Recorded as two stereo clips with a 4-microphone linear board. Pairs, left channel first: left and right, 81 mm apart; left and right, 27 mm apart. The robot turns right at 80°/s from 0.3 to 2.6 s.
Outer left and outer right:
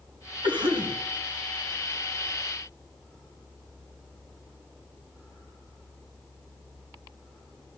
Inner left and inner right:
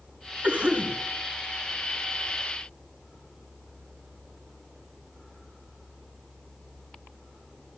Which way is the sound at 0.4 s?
100° right.